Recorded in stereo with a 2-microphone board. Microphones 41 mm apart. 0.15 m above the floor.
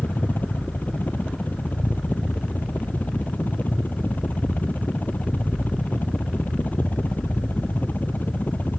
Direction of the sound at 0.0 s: 45° left (ahead or behind).